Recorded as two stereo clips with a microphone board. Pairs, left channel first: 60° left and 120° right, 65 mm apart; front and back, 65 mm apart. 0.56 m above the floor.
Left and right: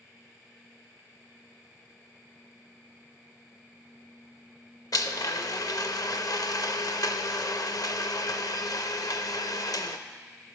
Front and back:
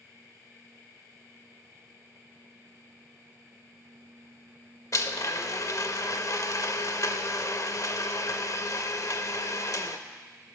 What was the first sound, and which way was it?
A blender, 35° left.